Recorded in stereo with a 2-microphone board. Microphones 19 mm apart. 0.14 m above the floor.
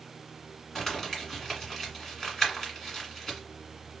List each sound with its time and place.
0.8 s crumpling: 15° left (ahead or behind), 1.6 m